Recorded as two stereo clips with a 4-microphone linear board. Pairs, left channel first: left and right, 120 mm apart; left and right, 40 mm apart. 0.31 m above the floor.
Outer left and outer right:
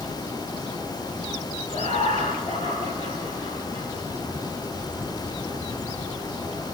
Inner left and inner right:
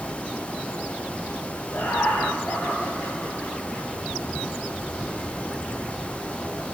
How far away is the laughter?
About 3 m.